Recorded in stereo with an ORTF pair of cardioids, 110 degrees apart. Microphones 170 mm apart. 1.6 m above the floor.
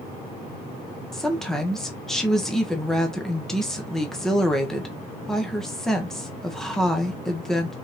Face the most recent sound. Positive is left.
turn(degrees=5)